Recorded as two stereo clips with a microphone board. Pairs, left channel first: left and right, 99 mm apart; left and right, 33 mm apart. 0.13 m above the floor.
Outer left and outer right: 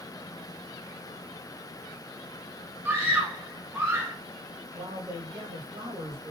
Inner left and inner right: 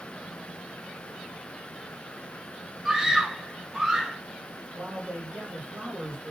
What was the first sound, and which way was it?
A scream, 20° right (ahead or behind).